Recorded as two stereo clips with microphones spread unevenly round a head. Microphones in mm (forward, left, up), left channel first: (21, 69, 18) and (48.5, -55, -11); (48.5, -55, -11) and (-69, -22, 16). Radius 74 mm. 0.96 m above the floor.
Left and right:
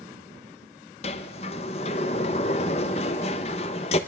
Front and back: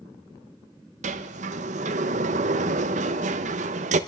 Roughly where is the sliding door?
Behind left.